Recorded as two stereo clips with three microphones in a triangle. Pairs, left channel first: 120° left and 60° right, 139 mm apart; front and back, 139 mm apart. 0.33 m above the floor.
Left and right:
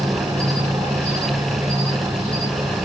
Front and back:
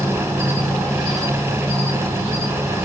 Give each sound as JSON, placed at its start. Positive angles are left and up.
{"t": 0.0, "sound": "an insect", "azimuth_deg": -95, "distance_m": 1.9}